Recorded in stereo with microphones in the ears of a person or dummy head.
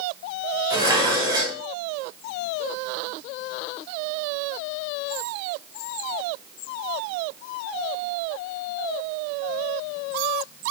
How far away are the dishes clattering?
About 4.5 m.